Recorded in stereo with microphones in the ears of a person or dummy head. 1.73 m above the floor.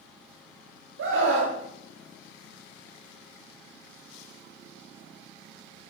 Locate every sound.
1.0 s a scream: 75° right (ahead or behind), 1.0 m